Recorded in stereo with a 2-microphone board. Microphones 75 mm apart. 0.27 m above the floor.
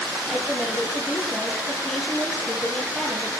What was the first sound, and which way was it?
A woman speaking, 5° left (ahead or behind).